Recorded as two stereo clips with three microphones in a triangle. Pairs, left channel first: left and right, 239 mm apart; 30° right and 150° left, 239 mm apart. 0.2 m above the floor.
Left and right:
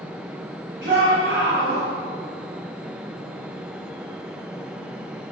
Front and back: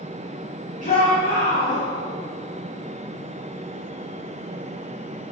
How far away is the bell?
No bell in this recording.